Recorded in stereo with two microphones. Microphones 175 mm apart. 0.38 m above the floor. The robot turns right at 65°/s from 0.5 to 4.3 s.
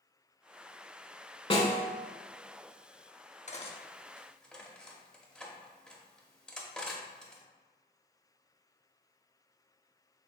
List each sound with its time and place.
1.5 s a snare drum: 35° left (ahead or behind), 0.7 m; by 1.9 s 60° left (ahead or behind), 0.7 m
3.5 s cutlery clinking: 45° left (ahead or behind), 0.6 m; by 7.4 s 5° left (ahead or behind), 0.6 m